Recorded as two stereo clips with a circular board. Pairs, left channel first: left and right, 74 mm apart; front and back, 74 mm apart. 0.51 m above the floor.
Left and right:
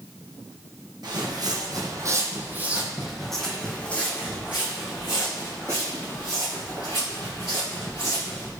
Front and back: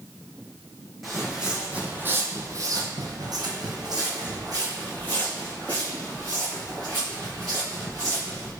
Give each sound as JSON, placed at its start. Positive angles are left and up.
{"t": 1.0, "sound": "footsteps", "azimuth_deg": -90, "distance_m": 1.2}